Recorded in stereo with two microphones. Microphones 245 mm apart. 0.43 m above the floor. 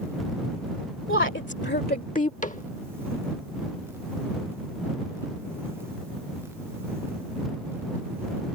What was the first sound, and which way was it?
A woman speaking, 55° left (ahead or behind).